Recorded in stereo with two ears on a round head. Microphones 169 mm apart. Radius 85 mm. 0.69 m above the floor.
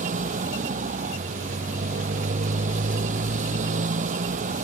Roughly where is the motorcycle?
Right.